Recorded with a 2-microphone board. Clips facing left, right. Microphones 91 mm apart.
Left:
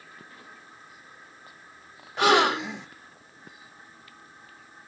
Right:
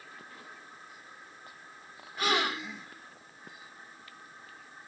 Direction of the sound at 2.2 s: 70° left (ahead or behind).